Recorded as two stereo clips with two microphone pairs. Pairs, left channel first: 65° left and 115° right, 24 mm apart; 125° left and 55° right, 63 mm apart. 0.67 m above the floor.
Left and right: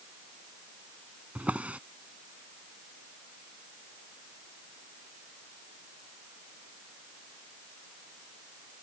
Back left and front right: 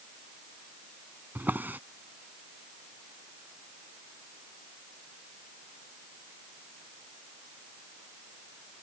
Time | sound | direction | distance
1.4 | a drawer | 115° right | ?